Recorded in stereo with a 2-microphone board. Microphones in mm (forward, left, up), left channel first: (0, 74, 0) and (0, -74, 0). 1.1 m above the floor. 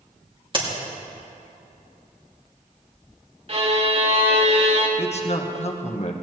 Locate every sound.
0.5 s a crack: 35° right (ahead or behind), 2.5 m
3.5 s a violin: 45° right (ahead or behind), 1.5 m
5.0 s a man speaking: 45° left (ahead or behind), 1.1 m